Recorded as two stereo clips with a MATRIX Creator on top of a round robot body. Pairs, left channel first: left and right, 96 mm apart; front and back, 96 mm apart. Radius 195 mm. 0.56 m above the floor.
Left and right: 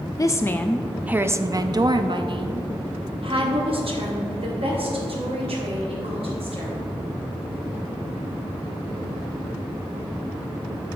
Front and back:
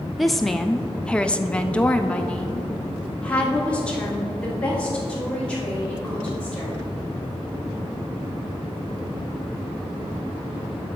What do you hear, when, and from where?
0.2 s a woman speaking: 90° left, 0.7 m; by 6.8 s 80° right, 3 m